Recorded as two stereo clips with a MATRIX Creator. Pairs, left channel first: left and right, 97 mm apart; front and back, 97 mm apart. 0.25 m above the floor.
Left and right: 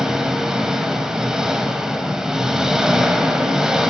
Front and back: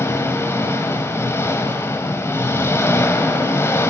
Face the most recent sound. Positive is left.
turn(degrees=-15)